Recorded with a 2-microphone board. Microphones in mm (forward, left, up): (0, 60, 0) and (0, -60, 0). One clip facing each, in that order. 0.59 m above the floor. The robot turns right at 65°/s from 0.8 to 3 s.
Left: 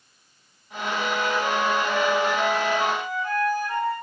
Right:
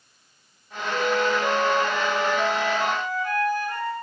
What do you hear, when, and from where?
0.9 s a flute: 15° left, 1.6 m; by 3.9 s 150° left, 1.6 m